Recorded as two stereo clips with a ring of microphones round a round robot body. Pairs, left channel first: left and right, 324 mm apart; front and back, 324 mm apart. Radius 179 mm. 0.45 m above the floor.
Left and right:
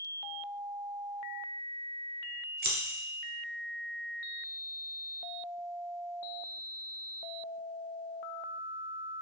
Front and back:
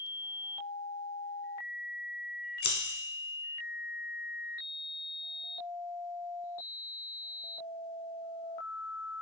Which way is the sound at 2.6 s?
40° right.